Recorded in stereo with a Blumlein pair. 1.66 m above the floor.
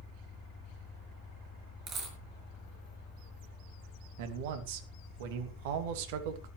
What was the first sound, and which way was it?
An engine running, 20° left.